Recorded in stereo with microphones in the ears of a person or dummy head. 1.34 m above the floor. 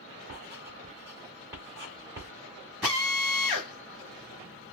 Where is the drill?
Centre (ahead or behind), 1.2 m.